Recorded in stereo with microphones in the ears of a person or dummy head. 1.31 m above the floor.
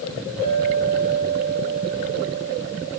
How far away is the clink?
About 5.5 m.